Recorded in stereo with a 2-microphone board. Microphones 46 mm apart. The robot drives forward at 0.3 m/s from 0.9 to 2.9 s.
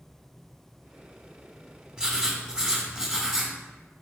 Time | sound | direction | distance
2.0 | writing | 20° right (ahead or behind) | 1.7 m